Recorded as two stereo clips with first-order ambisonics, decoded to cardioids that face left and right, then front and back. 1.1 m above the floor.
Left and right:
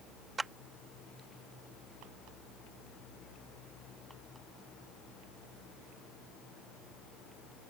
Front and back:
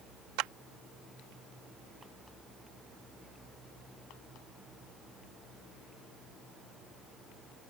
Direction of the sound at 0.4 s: 165° right.